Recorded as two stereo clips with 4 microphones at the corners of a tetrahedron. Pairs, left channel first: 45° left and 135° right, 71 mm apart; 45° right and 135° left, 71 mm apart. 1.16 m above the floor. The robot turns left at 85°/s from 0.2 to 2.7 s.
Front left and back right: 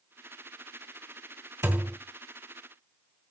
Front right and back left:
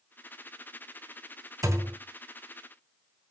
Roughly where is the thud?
Behind.